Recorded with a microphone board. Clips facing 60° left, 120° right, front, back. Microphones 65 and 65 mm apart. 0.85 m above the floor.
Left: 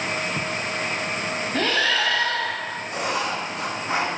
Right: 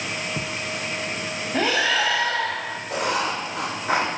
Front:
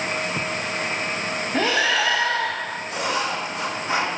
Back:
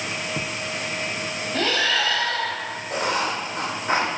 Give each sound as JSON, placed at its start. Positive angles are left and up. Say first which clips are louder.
{"t": 1.5, "sound": "breathing", "louder": "right 1 dB, front 2 dB", "azimuth_deg": -55, "distance_m": 0.7}
{"t": 2.9, "sound": "writing", "louder": "right 2 dB, back 1 dB", "azimuth_deg": -135, "distance_m": 1.7}